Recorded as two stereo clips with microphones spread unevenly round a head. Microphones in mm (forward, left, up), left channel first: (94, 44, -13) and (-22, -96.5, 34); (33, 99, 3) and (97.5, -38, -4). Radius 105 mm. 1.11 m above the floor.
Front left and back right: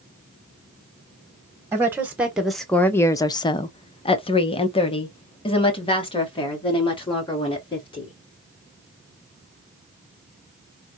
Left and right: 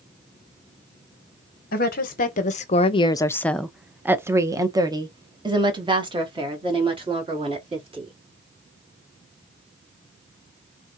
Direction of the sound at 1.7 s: 145° left.